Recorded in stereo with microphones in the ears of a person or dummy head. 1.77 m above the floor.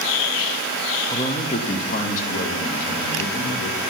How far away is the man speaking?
About 0.6 m.